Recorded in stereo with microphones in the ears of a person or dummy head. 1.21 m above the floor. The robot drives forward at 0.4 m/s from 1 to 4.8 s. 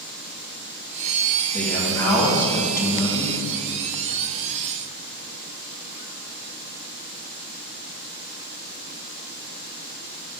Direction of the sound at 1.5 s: 10° left (ahead or behind).